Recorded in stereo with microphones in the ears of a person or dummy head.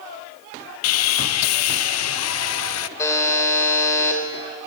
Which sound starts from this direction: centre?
A buzzer, at 3.0 s.